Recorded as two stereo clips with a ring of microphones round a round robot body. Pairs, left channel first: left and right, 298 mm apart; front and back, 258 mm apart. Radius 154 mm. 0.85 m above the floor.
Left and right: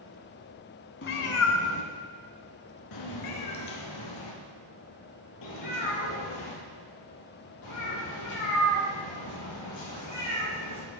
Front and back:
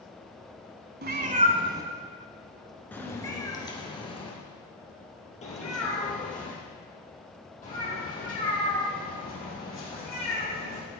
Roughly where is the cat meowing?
Behind left.